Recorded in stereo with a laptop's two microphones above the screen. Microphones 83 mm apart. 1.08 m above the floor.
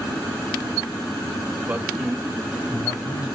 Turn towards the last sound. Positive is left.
turn(degrees=50)  # may be behind; listen again after turning